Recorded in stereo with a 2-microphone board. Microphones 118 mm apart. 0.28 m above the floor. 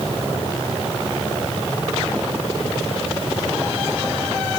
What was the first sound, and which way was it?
Only background noise.